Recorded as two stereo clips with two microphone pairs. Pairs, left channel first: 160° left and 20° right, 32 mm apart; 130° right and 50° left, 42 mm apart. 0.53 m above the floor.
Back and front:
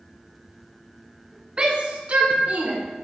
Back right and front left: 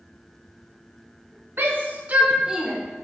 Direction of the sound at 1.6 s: 35° left.